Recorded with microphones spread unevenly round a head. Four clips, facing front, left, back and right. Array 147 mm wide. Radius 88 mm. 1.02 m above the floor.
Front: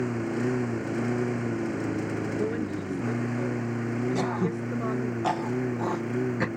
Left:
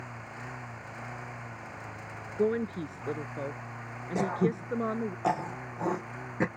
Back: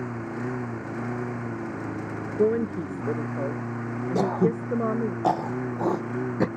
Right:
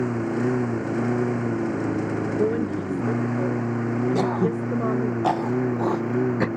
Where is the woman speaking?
165° right.